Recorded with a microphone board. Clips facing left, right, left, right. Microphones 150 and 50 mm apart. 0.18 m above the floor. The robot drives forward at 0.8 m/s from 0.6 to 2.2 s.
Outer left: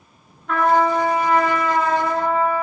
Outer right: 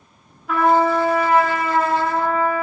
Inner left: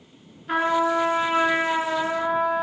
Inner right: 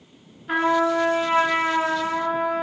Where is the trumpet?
5° right (ahead or behind), 0.5 m; by 2.6 s centre (ahead or behind), 1.8 m.